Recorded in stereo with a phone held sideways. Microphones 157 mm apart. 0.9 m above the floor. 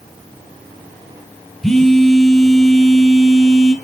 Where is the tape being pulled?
No tape being pulled in this recording.